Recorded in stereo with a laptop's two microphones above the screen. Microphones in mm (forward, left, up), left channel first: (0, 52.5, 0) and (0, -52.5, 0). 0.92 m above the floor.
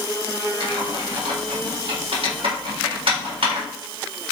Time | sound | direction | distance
0.6 | typing on a keyboard | 65° right (ahead or behind) | 3.5 m